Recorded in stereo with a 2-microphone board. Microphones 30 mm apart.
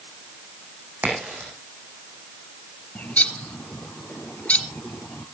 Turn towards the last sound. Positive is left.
turn(degrees=55)  # may be behind; listen again after turning